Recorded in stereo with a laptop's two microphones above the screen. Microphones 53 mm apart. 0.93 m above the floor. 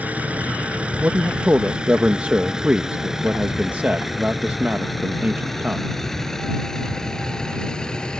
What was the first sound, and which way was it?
A vehicle, 25° right (ahead or behind).